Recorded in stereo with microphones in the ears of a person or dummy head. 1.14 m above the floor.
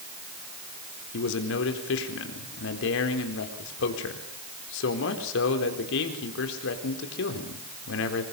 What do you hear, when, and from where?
1.1 s a man speaking: 70° left (ahead or behind), 4 m